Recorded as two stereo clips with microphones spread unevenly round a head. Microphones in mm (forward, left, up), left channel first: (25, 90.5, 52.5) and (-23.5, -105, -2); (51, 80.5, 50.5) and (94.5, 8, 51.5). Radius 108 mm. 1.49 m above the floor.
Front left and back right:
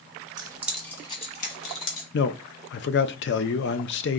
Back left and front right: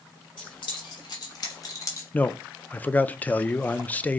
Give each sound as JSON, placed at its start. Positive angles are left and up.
{"t": 0.4, "sound": "keys jangling", "azimuth_deg": 180, "distance_m": 1.2}
{"t": 2.1, "sound": "a man speaking", "azimuth_deg": 50, "distance_m": 0.5}